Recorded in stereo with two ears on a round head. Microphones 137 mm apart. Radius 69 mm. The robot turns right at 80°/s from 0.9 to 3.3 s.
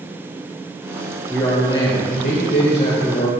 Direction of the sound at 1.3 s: 10° left.